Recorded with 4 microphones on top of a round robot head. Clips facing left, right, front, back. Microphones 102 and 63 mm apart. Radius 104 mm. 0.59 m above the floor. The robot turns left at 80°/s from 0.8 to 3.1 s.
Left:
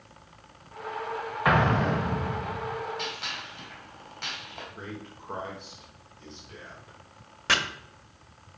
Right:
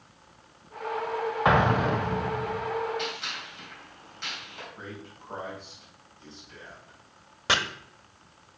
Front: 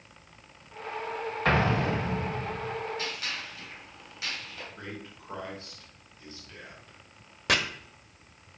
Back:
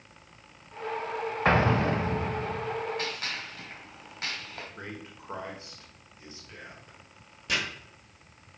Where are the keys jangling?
No keys jangling in this recording.